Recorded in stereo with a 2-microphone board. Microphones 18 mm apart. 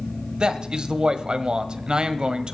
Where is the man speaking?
45° right (ahead or behind), 1.2 m.